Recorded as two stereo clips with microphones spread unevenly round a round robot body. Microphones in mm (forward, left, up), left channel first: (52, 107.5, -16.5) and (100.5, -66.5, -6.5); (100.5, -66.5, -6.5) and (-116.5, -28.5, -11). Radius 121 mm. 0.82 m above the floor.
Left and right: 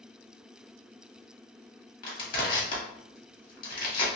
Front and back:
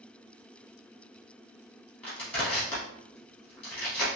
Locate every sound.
2.0 s crushing: 75° left, 1.9 m